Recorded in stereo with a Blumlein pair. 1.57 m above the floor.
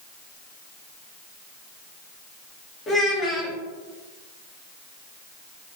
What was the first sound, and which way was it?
A child speaking, 15° left.